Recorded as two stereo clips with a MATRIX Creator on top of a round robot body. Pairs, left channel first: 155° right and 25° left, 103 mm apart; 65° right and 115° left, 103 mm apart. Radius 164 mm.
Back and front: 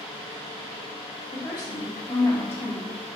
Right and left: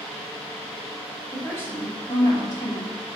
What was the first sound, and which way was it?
A woman speaking, 135° right.